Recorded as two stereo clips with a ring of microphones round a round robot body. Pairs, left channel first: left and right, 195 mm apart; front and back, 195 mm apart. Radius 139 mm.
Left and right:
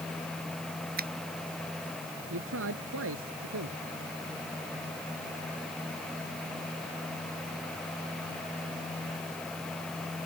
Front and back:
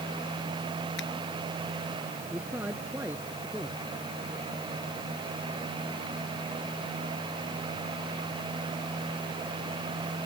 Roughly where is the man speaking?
Right.